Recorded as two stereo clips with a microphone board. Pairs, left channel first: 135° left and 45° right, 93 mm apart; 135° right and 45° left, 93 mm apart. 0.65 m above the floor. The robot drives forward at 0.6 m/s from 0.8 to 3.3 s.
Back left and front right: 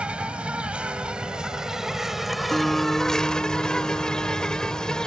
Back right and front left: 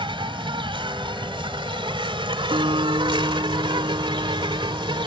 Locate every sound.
0.0 s an insect: 30° left; by 5.1 s 50° left
2.5 s a guitar: 50° left; by 5.1 s 55° left